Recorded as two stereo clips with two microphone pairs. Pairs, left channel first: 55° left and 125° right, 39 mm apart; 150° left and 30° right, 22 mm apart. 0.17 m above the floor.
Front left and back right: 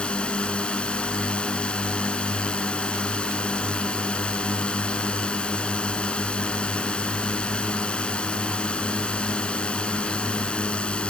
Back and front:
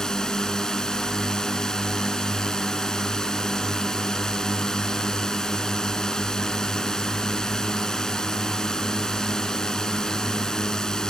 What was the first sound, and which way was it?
A drone, 100° left.